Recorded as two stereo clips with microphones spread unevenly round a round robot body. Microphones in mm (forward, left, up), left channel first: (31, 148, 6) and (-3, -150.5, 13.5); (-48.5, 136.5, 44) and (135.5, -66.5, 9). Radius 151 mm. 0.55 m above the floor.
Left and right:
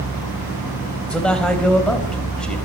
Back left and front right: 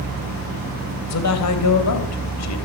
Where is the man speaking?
170° left, 3 m.